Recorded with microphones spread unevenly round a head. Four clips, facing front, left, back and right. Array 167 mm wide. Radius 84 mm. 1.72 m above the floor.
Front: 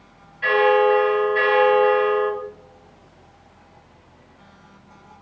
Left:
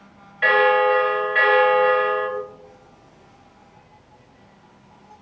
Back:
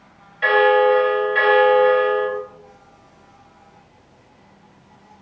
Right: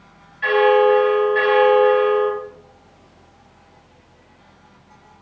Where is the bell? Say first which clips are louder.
Right 3 dB, back 2 dB; 140° left, 2.5 m.